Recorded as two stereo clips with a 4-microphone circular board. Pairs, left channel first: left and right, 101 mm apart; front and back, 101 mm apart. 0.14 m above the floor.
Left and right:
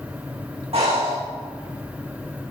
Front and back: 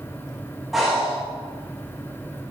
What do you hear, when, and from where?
0.7 s breathing: 90° right, 5.5 m